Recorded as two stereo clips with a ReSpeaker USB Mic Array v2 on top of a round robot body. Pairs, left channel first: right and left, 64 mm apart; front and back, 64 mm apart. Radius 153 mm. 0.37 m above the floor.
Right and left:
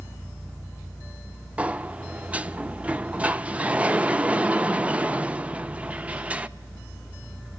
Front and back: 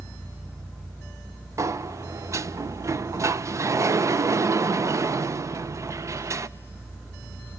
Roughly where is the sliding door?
Behind left.